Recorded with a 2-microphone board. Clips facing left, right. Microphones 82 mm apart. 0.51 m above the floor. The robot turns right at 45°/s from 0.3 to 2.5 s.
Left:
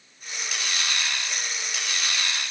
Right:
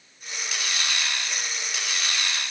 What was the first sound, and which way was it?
Only background noise.